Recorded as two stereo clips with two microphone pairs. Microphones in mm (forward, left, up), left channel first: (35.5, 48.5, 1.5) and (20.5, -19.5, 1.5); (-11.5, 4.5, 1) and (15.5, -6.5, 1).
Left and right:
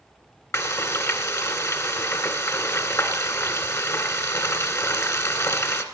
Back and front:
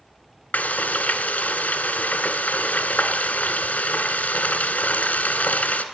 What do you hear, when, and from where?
0.5 s frying: 120° left, 1.5 m